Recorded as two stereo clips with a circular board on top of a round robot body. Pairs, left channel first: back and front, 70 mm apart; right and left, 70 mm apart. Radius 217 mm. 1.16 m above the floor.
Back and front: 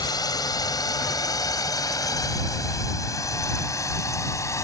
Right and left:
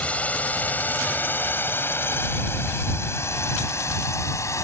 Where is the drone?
160° right; by 4.7 s 135° right.